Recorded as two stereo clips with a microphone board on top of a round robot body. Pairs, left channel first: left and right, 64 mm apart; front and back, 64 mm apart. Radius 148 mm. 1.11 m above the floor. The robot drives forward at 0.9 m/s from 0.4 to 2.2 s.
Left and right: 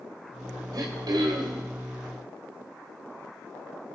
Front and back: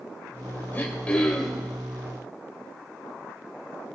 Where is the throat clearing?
60° right, 1.7 m; by 1.7 s 95° right, 1.5 m.